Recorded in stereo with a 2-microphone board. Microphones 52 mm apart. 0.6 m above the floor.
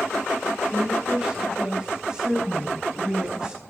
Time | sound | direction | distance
0.7 | a woman speaking | 15° right (ahead or behind) | 3.5 m